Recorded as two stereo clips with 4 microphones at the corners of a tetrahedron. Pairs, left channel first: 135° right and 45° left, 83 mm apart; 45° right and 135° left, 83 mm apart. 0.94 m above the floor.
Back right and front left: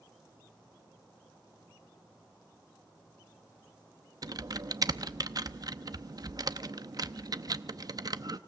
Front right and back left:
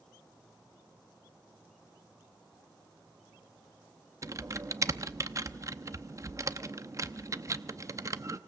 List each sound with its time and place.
4.2 s typing on a keyboard: 85° left, 0.7 m